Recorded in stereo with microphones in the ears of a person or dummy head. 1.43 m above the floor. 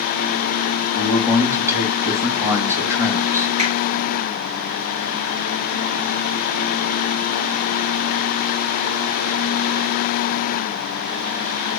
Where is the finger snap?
45° right (ahead or behind), 3.5 m.